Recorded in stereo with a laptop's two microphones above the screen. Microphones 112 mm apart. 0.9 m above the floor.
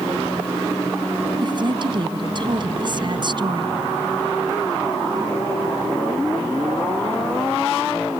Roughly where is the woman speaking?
Right.